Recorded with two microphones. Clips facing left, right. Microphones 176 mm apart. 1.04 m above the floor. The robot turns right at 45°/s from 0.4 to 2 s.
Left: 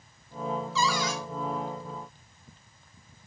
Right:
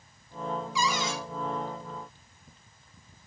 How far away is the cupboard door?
About 1.2 m.